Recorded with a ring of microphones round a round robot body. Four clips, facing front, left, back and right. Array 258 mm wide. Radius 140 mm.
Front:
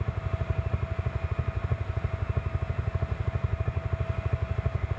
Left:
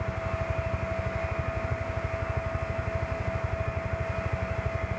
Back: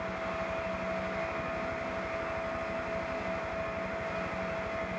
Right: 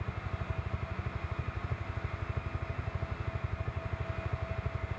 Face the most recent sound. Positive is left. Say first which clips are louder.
# left 10 dB, back 3 dB
turn(degrees=10)